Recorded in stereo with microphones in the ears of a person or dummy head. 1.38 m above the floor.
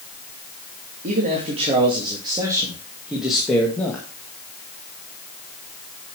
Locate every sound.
1.0 s a man speaking: 40° right (ahead or behind), 2.5 m; by 4.0 s 15° left (ahead or behind), 1.9 m